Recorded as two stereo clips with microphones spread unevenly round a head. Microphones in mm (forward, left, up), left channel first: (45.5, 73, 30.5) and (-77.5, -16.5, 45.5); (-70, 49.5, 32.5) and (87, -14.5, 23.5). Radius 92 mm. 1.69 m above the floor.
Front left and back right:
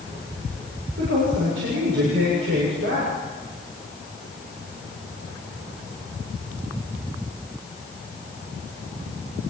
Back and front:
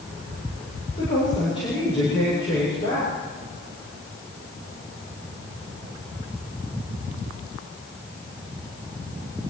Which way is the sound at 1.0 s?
140° right.